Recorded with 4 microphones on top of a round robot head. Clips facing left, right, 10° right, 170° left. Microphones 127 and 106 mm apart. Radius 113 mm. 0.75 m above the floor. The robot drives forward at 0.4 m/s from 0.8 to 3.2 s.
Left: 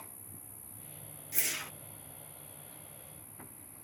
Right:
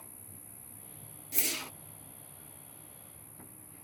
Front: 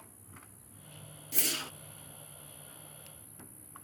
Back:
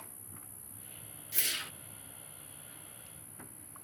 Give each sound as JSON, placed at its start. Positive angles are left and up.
{"t": 0.0, "sound": "an insect", "azimuth_deg": 180}
{"t": 1.3, "sound": "a whoosh", "azimuth_deg": -35}